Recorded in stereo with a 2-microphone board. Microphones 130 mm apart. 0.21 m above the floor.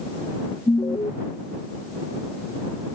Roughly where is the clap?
No clap in this recording.